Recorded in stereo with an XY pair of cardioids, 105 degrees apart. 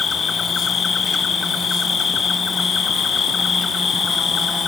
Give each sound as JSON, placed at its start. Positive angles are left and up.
{"t": 0.0, "sound": "an insect", "azimuth_deg": 40, "distance_m": 0.7}